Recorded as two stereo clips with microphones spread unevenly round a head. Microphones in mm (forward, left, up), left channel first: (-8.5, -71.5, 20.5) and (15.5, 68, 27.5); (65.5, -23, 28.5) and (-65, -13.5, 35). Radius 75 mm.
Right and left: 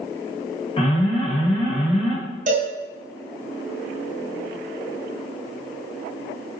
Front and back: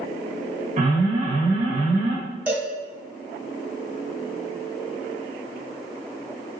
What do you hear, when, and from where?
0.8 s an alarm: 150° right, 3 m
2.5 s a cowbell: 100° left, 1.6 m